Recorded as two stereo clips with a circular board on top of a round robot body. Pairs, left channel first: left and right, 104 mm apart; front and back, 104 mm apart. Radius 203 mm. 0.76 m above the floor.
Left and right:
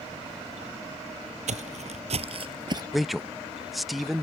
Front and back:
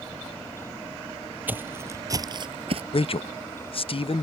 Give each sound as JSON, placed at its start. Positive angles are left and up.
{"t": 1.5, "sound": "footsteps", "azimuth_deg": -105}
{"t": 2.9, "sound": "a man speaking", "azimuth_deg": 0}